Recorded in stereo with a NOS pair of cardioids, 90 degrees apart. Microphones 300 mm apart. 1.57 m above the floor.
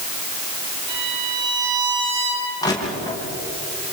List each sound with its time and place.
0.9 s a violin: 60° right, 9.5 m
2.6 s crushing: 10° left, 8 m